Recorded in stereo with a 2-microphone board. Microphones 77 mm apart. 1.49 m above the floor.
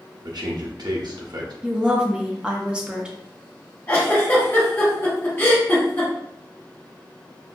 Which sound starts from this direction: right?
A man speaking, at 0.2 s.